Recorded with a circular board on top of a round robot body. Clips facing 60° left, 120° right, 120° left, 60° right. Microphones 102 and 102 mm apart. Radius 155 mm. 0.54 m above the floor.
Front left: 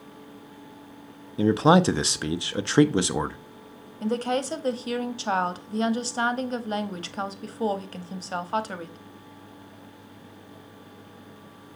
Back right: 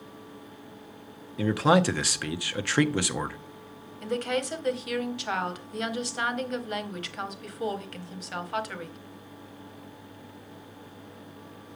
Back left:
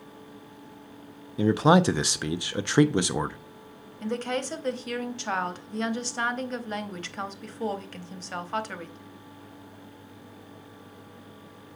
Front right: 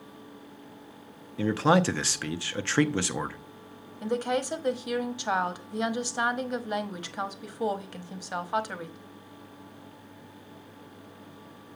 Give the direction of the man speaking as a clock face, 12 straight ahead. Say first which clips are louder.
Front left 4 dB, back left 3 dB; 9 o'clock.